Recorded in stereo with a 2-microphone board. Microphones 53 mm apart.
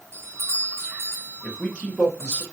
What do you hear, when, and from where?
0.1 s a doorbell: 55° right (ahead or behind), 0.8 m
1.4 s a man speaking: 20° left (ahead or behind), 1.1 m